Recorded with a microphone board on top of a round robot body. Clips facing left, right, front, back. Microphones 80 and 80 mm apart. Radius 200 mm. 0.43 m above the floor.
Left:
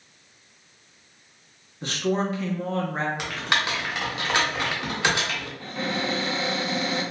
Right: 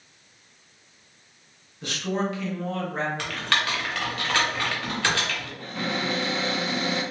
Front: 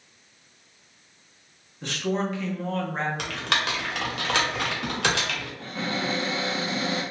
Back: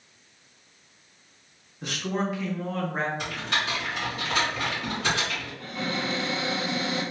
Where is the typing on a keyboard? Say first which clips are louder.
Left 1 dB, front 2 dB; 15° left, 0.8 m.